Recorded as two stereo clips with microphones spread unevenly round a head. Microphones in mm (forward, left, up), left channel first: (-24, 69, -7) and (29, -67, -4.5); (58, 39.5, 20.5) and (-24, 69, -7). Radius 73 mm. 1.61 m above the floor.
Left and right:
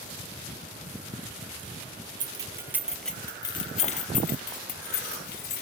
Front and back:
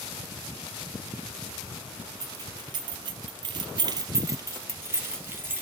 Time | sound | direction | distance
2.2 | keys jangling | 125° right | 0.9 m